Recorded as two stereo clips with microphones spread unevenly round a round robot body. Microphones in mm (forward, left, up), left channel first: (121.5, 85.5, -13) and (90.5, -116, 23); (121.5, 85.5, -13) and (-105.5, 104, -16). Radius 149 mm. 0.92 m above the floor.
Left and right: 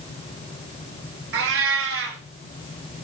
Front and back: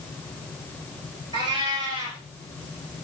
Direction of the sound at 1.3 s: 110° right.